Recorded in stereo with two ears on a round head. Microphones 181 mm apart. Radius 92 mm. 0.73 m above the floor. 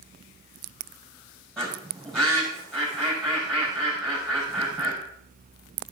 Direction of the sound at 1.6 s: 5° left (ahead or behind).